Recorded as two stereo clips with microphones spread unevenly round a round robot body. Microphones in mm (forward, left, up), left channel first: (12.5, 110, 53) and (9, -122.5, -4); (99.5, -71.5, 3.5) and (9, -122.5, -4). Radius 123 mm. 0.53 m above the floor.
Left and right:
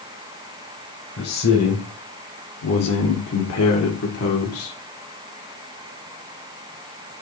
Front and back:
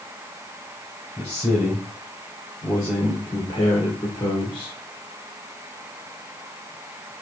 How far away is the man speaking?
About 3 m.